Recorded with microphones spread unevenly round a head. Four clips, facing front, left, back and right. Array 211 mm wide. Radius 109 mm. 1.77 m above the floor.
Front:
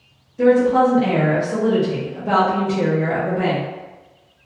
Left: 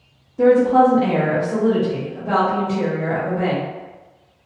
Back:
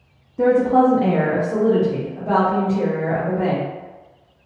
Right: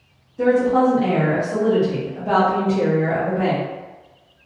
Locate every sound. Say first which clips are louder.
0.4 s a woman speaking: left 3 dB, front 1 dB; 150° left, 0.9 m; by 3.6 s 30° right, 1.4 m